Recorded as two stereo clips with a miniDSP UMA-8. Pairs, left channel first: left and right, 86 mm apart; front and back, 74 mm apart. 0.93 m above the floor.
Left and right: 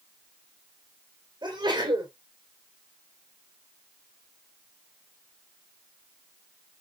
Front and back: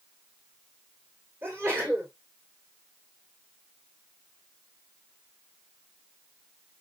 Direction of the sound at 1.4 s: 125° right.